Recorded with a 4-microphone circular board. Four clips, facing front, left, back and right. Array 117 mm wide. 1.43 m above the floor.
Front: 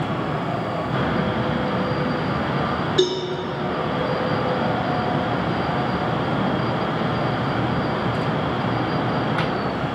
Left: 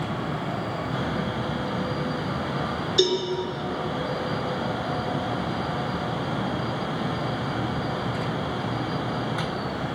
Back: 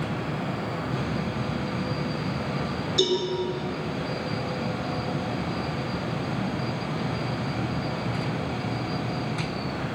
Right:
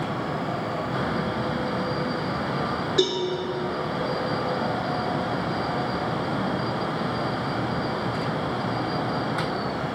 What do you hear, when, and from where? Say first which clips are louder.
3.0 s a cowbell: left 2 dB, front 3 dB; 45° right, 5 m